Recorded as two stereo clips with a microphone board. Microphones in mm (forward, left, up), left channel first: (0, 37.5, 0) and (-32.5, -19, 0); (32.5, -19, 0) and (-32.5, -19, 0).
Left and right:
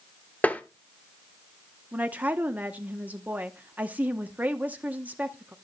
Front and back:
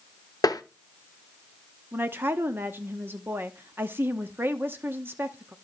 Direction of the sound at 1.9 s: 165° right.